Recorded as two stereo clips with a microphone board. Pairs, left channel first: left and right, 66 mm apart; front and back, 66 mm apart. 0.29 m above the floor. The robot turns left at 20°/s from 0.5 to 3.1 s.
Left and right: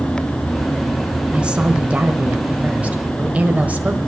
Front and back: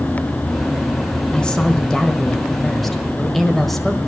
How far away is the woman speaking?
About 1.3 m.